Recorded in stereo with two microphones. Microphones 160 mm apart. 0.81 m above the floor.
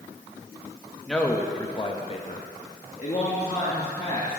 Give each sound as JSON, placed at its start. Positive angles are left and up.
{"t": 1.1, "sound": "a man speaking", "side_deg": 5, "distance_m": 1.0}